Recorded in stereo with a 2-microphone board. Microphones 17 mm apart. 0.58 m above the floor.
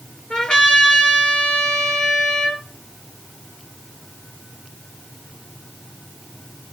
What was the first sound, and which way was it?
A trumpet, 70° left (ahead or behind).